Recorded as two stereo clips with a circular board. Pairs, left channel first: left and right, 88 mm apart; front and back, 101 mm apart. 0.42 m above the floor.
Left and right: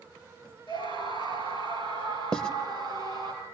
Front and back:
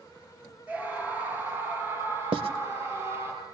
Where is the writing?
170° left, 0.9 m.